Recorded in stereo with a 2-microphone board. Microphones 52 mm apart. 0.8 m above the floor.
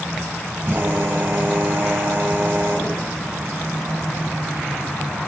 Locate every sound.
0.6 s a drill: 35° right (ahead or behind), 4.5 m